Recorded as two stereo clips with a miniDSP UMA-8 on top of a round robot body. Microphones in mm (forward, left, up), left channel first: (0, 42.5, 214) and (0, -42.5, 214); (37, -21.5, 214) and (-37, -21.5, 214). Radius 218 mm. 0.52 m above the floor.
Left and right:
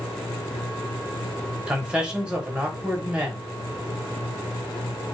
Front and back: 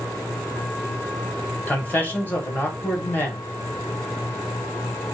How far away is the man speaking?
About 1.2 m.